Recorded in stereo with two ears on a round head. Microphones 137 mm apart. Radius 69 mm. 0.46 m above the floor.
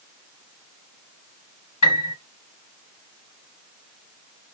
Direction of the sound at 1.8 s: 45° left (ahead or behind).